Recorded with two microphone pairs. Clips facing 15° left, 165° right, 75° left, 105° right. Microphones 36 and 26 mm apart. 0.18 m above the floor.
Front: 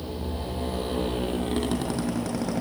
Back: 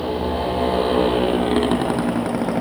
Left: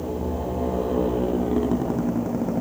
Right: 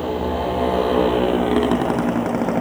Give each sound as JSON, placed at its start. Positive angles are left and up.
{"t": 0.0, "sound": "a motorcycle", "azimuth_deg": -120}